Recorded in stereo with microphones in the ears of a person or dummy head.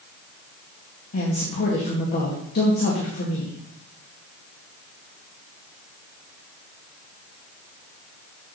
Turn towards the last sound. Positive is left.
turn(degrees=50)  # may be behind; listen again after turning